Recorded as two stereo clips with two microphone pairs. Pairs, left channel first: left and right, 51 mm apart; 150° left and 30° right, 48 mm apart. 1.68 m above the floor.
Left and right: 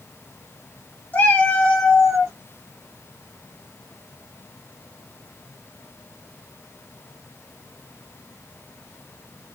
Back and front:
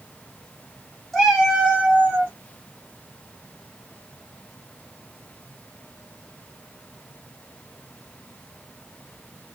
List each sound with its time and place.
1.1 s a cat meowing: 60° left, 1.2 m; by 2.3 s 10° right, 1.5 m